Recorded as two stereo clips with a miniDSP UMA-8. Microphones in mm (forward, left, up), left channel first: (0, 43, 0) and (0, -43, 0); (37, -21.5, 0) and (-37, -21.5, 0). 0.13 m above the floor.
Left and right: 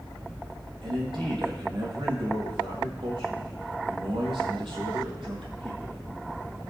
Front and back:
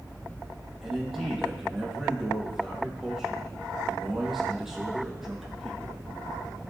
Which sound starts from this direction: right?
A man speaking, at 0.8 s.